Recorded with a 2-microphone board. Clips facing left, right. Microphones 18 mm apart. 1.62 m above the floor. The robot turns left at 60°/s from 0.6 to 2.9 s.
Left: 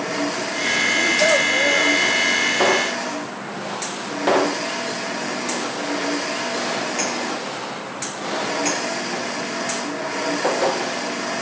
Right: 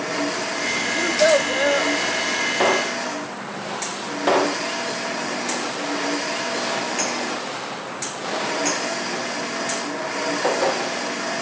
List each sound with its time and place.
0.9 s a child speaking: 115° right, 0.9 m; by 1.9 s 175° right, 0.9 m